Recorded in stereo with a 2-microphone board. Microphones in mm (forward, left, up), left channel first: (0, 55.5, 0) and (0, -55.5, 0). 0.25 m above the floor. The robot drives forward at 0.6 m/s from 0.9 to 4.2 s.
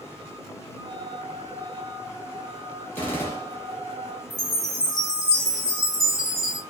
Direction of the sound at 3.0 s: 20° left (ahead or behind).